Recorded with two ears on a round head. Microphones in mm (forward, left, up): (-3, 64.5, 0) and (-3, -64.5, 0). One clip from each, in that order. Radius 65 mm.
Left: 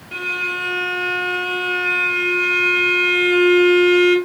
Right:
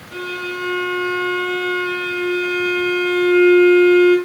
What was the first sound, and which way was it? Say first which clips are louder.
A violin: left 4 dB; 50° left (ahead or behind).